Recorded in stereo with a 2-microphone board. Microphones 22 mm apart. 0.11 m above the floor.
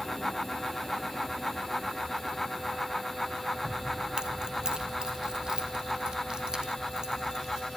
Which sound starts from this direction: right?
Keys jangling, at 3.6 s.